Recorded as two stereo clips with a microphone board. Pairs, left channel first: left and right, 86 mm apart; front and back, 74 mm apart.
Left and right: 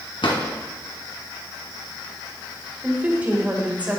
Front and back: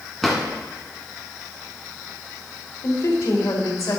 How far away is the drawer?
About 1.7 m.